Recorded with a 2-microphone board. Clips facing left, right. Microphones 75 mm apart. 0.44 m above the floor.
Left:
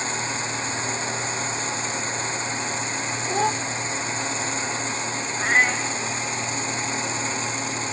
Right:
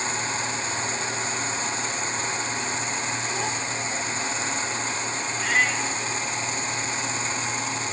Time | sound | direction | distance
3.3 | a child speaking | 45° left (ahead or behind) | 0.6 m
5.4 | a cat meowing | 35° left (ahead or behind) | 1.3 m